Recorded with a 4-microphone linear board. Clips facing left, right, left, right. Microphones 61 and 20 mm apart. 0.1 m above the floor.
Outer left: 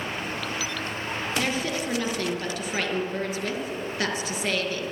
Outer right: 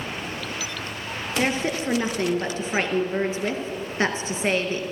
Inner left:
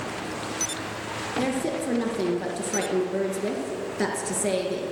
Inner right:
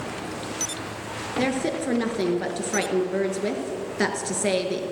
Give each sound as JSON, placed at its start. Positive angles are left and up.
{"t": 1.4, "sound": "a woman speaking", "side_deg": -30, "distance_m": 1.2}